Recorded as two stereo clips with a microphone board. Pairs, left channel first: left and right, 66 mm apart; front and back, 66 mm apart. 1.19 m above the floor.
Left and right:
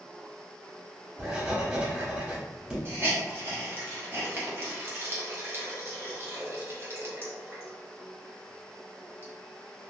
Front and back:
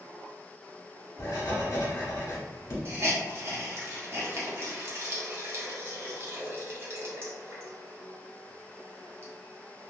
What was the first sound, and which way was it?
Writing, 20° right.